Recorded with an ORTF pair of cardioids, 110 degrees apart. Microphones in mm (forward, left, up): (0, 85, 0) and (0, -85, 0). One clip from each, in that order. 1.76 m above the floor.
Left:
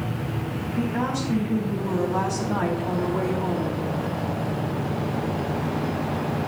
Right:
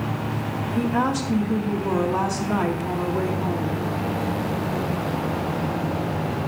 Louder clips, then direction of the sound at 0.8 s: Right 4 dB; 55° right.